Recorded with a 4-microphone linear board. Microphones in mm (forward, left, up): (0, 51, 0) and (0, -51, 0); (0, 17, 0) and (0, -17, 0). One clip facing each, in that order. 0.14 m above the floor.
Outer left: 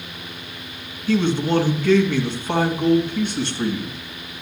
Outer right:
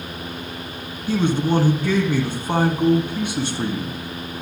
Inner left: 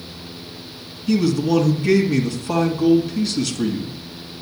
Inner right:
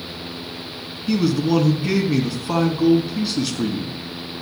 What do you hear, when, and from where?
1.1 s a man speaking: 10° right (ahead or behind), 1.6 m